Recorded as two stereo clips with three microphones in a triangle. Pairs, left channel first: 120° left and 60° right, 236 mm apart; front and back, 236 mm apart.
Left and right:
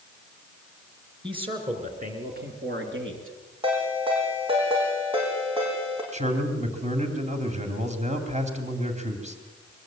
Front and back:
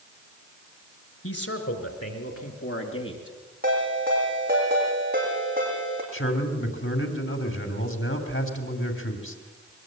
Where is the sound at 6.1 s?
5° right, 3 m.